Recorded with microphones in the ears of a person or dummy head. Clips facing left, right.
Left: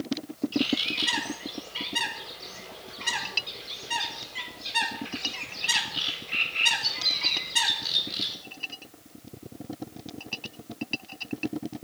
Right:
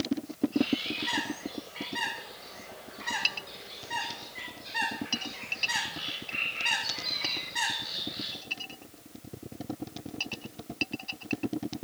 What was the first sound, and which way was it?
A bird, 45° left (ahead or behind).